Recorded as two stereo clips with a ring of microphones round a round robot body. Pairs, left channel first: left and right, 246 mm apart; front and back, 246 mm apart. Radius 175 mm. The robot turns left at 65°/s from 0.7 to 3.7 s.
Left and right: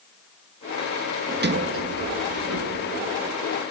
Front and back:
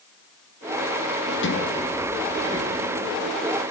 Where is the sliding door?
35° right, 1.4 m; by 3.3 s 170° right, 1.4 m.